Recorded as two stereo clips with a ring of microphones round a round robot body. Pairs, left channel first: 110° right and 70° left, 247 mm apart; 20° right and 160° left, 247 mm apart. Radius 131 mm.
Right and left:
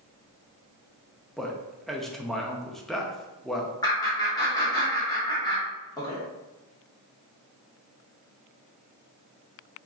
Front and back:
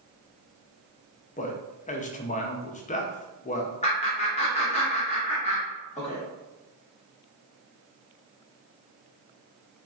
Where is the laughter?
55° right, 0.8 m.